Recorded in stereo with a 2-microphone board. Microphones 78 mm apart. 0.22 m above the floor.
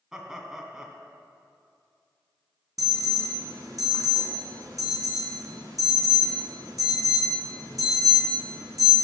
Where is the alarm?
50° right (ahead or behind), 2.5 m.